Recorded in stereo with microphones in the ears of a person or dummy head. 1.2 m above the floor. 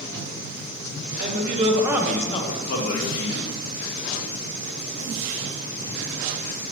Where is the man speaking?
50° right (ahead or behind), 0.8 m; by 3.5 s 70° left (ahead or behind), 1.1 m.